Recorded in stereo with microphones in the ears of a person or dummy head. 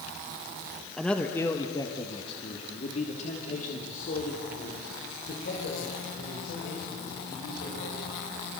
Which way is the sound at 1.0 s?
5° left (ahead or behind).